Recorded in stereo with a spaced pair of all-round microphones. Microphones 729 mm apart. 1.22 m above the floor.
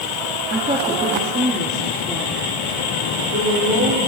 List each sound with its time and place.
0.5 s a woman speaking: 10° right (ahead or behind), 2.5 m; by 4.0 s 25° right (ahead or behind), 4 m